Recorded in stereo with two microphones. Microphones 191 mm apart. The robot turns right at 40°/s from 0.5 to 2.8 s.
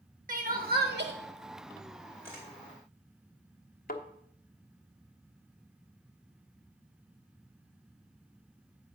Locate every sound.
0.3 s crying: 50° right (ahead or behind), 1.3 m; by 1.1 s 70° right (ahead or behind), 1.3 m
2.2 s a camera shutter: 10° right (ahead or behind), 3.5 m; by 2.5 s centre (ahead or behind), 3.5 m
3.9 s a thud: 55° left (ahead or behind), 1.1 m